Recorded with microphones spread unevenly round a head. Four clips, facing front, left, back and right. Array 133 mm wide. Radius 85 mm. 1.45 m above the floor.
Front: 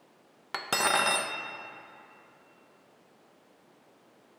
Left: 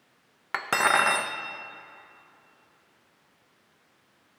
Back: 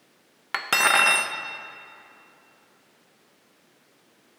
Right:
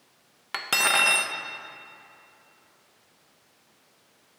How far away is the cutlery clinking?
About 0.6 m.